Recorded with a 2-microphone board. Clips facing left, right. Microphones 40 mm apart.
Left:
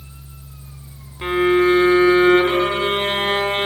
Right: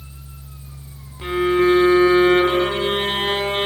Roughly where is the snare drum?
No snare drum in this recording.